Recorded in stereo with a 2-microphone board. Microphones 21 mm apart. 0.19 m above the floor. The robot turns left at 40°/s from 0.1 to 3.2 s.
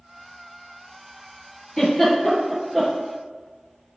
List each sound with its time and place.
1.8 s a giggle: 15° left (ahead or behind), 4 m; by 2.9 s 25° right (ahead or behind), 4 m